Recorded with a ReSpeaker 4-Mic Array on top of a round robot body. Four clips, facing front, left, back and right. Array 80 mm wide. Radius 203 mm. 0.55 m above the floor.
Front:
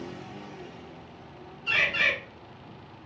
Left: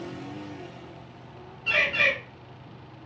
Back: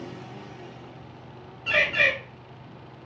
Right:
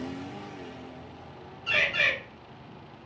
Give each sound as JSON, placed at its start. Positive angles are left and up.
{"t": 1.7, "sound": "a bird", "azimuth_deg": 155, "distance_m": 1.5}